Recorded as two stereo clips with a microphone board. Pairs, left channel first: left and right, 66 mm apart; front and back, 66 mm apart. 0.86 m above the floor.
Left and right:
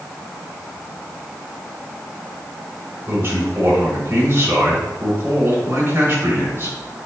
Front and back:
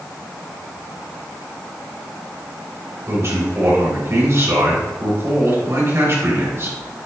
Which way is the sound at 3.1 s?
135° right.